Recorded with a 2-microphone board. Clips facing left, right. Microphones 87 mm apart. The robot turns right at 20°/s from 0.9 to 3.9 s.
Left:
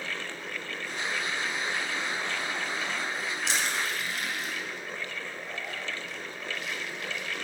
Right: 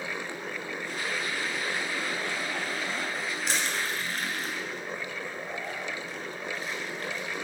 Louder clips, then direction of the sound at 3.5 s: Even; 45° right (ahead or behind).